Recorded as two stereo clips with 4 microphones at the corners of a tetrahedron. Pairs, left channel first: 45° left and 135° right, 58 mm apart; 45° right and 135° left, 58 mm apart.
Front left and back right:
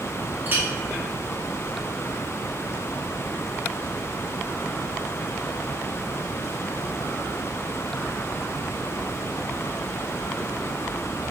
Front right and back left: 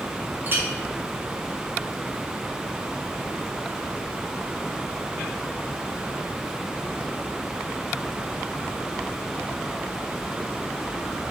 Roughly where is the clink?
Behind.